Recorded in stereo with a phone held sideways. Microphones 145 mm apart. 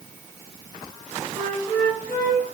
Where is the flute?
75° right (ahead or behind), 4 m.